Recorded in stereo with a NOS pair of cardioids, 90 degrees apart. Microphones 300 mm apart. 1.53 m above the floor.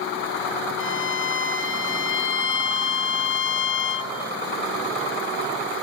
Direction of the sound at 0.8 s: 40° left.